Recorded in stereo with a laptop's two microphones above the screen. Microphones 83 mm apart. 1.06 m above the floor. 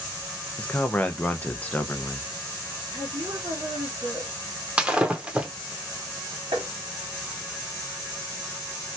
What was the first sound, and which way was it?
A man speaking, 20° left (ahead or behind).